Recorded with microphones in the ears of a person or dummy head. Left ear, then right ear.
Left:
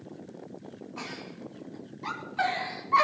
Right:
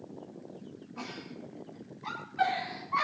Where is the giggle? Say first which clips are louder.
Left 2 dB; 25° left (ahead or behind), 5.5 m.